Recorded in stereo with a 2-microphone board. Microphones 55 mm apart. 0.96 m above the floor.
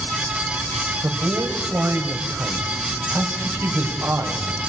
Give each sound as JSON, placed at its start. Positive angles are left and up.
{"t": 1.0, "sound": "a man speaking", "side_deg": -55, "distance_m": 4.0}